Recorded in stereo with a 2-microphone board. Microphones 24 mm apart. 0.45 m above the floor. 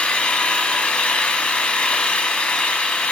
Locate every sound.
0.0 s an engine running: 60° left (ahead or behind), 0.8 m